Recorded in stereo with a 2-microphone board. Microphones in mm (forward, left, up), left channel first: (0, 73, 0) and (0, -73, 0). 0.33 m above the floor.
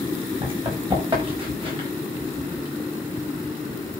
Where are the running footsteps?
35° right (ahead or behind), 8.5 m; by 1.9 s 40° right (ahead or behind), 7.5 m.